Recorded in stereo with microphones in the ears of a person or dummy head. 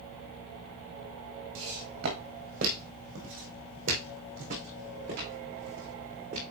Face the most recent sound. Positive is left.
turn(degrees=-35)  # may be behind; listen again after turning